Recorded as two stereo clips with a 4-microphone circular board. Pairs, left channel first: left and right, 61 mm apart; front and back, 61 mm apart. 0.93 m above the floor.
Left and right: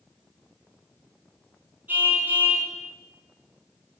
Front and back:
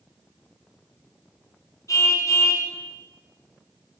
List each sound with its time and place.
1.9 s a car horn: 30° right, 5.5 m